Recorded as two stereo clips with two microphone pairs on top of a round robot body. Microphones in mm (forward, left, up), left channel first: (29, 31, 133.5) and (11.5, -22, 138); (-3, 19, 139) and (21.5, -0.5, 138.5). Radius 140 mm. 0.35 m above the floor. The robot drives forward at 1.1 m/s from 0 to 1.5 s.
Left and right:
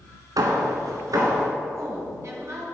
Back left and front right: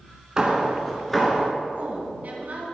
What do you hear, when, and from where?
0.4 s hammering: 100° right, 1.3 m; by 1.5 s 140° right, 2.0 m
1.8 s a woman speaking: 75° right, 4 m